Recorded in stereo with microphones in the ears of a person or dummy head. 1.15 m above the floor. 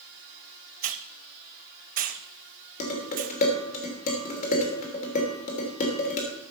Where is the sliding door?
No sliding door in this recording.